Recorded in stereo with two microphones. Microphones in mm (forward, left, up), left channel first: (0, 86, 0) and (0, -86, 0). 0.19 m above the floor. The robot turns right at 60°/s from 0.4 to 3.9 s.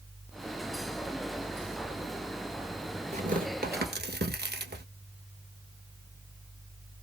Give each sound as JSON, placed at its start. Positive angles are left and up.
{"t": 3.1, "sound": "tearing paper", "side_deg": -40, "distance_m": 1.3}